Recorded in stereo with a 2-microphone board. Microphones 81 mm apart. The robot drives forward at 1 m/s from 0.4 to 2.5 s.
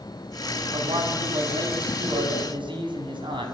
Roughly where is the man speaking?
Right.